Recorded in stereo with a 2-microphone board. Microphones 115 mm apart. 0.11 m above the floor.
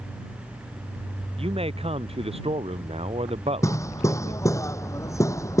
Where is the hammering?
25° left (ahead or behind).